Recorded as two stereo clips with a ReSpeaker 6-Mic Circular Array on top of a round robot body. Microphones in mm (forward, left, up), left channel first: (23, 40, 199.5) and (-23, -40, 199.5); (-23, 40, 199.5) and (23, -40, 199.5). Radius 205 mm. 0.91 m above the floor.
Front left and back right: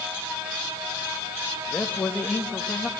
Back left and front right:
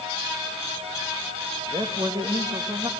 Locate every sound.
1.7 s a man speaking: 20° right, 2 m